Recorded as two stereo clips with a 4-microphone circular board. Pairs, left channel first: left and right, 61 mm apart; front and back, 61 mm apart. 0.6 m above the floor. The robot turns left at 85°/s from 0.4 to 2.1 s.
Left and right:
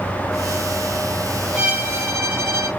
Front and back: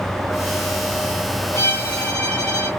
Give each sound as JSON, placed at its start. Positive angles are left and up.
{"t": 1.5, "sound": "a violin", "azimuth_deg": -20, "distance_m": 0.9}